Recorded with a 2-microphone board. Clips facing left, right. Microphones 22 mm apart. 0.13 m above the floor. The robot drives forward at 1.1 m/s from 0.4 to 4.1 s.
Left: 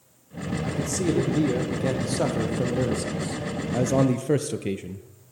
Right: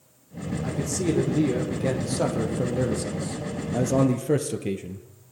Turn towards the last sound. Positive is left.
turn(degrees=10)  # may be behind; listen again after turning